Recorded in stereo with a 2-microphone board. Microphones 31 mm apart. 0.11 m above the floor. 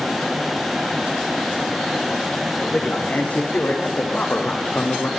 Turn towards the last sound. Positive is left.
turn(degrees=75)  # may be behind; listen again after turning